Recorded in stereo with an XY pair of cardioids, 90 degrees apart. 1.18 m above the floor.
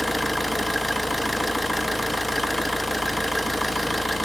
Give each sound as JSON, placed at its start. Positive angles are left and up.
{"t": 0.0, "sound": "an engine running", "azimuth_deg": 5, "distance_m": 1.0}